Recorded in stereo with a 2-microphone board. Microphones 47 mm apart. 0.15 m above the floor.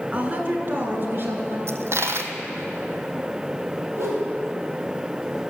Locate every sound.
0.1 s a woman speaking: 30° right (ahead or behind), 1.4 m; by 1.6 s 55° right (ahead or behind), 1.9 m
1.7 s a dropped coin: 65° right (ahead or behind), 0.9 m
4.0 s a whoosh: 65° right (ahead or behind), 4.5 m